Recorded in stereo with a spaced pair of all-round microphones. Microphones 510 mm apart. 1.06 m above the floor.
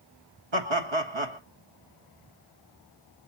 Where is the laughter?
60° right (ahead or behind), 1.8 m.